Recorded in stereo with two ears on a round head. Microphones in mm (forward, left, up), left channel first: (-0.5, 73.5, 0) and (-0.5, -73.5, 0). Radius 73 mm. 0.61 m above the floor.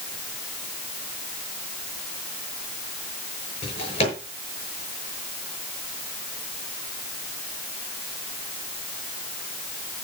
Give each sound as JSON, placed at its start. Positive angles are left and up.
{"t": 3.6, "sound": "a drawer", "side_deg": 35, "distance_m": 6.5}